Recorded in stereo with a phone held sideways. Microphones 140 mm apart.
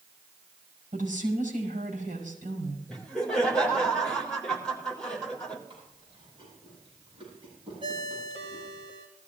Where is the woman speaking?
70° right (ahead or behind), 5.5 m.